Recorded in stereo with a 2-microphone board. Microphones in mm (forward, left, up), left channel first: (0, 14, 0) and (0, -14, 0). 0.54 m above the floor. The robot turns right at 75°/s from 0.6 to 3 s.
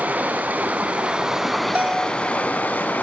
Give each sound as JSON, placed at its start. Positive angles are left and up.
{"t": 0.0, "sound": "running water", "azimuth_deg": -75, "distance_m": 3.0}
{"t": 1.8, "sound": "a bell", "azimuth_deg": -55, "distance_m": 4.0}